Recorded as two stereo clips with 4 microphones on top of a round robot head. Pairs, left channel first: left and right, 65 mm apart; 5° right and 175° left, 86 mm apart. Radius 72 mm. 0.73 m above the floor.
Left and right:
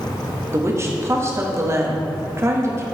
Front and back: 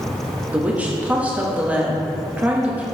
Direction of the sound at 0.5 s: 115° right.